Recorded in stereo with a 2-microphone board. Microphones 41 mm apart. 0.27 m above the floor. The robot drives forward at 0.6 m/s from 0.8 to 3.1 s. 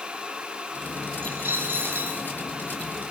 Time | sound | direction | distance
1.2 | a dropped coin | 50° right (ahead or behind) | 8.5 m